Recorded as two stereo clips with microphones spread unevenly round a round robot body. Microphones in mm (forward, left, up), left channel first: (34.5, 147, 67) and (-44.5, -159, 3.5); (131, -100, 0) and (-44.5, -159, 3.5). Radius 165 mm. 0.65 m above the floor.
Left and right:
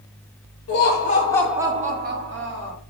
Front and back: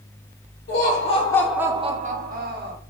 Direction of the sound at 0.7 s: 20° left.